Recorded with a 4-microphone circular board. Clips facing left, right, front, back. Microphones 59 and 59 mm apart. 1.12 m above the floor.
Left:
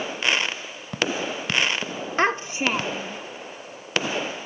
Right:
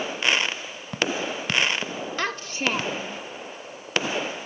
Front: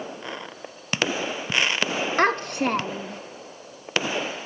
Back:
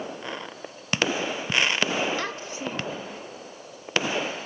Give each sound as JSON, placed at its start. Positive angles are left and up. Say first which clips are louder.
{"t": 2.2, "sound": "a child speaking", "louder": "left 6 dB, front 10 dB", "azimuth_deg": 35, "distance_m": 0.6}